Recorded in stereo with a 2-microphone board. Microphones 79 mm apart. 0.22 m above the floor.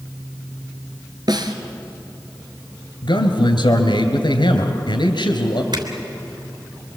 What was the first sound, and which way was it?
A snare drum, 60° right (ahead or behind).